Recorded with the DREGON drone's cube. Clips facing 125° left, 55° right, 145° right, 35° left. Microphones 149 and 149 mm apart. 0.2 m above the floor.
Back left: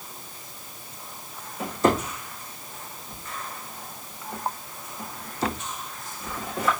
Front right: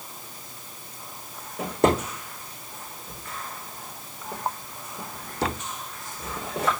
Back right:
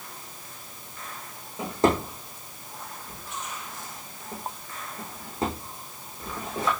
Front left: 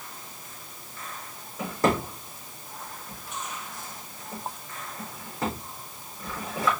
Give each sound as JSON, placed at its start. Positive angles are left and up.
{"t": 1.6, "sound": "a drawer", "azimuth_deg": -80, "distance_m": 4.0}